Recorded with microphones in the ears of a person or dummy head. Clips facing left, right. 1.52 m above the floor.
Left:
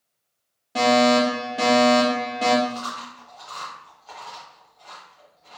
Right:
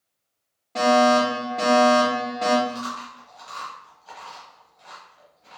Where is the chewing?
25° right (ahead or behind), 1.0 m.